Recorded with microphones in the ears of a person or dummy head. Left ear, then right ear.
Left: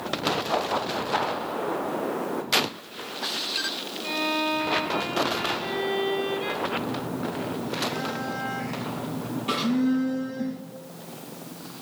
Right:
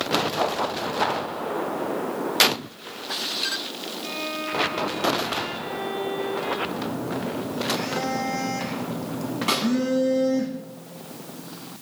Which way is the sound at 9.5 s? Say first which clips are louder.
Right 3 dB; 55° right (ahead or behind).